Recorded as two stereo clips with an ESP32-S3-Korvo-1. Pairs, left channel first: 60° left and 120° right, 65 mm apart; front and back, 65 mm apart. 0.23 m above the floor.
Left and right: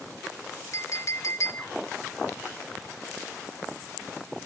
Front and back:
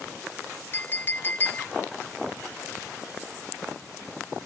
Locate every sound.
0.7 s a clink: 45° left, 0.8 m